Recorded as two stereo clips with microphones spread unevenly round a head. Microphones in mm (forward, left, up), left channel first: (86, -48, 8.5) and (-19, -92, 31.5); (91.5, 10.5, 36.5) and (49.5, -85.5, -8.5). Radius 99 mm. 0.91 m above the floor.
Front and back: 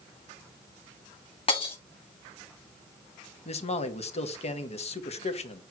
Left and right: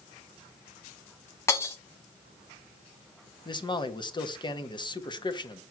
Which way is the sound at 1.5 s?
75° left.